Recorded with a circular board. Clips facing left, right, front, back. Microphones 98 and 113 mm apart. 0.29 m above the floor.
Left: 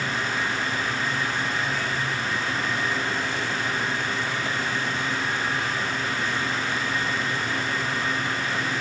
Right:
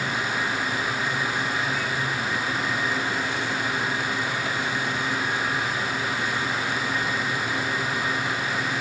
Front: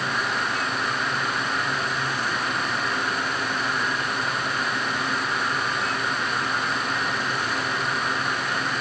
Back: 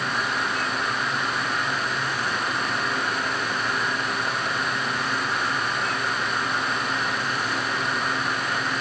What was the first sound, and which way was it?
Only background noise.